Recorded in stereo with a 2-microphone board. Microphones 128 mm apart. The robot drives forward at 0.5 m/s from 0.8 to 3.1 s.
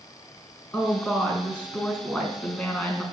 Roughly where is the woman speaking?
Centre.